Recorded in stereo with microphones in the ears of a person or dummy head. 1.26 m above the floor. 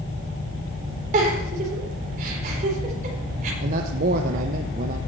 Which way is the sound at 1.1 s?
45° right (ahead or behind).